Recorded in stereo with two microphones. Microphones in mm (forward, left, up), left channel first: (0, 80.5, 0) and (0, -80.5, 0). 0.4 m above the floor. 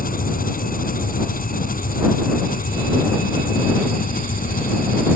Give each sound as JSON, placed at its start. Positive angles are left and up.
{"t": 0.0, "sound": "an engine running", "side_deg": 65}